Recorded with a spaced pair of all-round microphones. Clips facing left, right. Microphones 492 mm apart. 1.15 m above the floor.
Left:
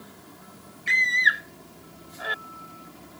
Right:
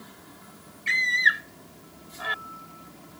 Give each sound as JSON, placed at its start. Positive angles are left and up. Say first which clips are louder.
{"t": 0.9, "sound": "a scream", "louder": "left 1 dB", "side_deg": -25}